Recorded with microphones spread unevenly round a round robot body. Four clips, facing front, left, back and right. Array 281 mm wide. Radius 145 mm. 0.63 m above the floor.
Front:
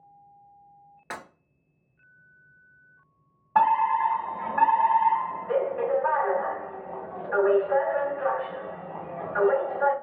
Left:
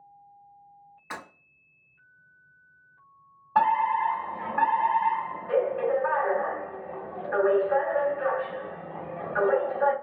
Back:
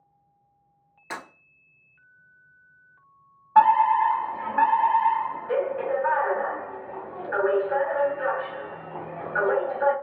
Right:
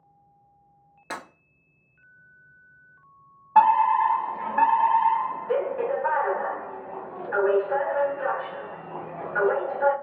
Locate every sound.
1.1 s breaking glass: 60° right, 1.6 m
3.5 s a fire alarm: straight ahead, 1.7 m